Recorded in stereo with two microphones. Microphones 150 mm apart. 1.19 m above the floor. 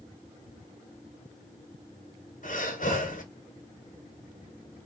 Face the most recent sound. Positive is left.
turn(degrees=60)  # may be behind; listen again after turning